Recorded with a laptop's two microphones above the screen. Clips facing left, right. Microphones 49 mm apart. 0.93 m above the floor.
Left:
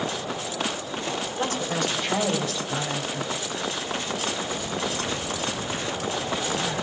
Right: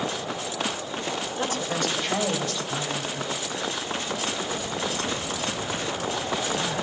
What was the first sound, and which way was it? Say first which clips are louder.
A woman speaking: left 1 dB; 15° right (ahead or behind).